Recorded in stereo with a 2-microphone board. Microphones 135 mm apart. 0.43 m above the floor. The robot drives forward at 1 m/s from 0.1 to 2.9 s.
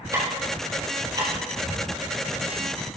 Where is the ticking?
25° right (ahead or behind), 5.5 m; by 1.3 s 30° right (ahead or behind), 4.5 m.